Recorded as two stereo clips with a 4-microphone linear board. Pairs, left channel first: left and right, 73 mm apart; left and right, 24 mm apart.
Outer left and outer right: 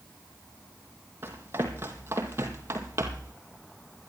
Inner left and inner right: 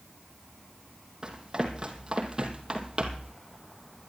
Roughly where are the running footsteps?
Right.